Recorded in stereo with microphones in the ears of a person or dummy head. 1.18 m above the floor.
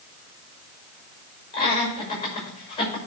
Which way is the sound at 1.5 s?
30° left (ahead or behind).